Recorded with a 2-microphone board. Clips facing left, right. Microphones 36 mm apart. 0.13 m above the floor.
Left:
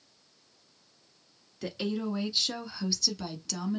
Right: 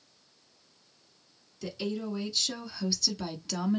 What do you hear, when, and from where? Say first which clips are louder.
1.6 s a woman speaking: left 2 dB; 40° left (ahead or behind), 1.4 m; by 3.8 s 20° right (ahead or behind), 1.1 m